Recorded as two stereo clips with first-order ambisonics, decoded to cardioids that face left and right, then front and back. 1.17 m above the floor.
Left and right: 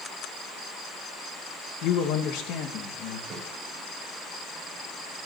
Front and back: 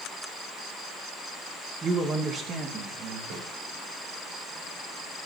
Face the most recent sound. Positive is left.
turn(degrees=-150)